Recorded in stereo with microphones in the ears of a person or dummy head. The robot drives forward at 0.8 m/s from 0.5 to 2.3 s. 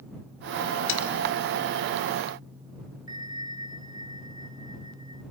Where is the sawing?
80° left, 3.5 m.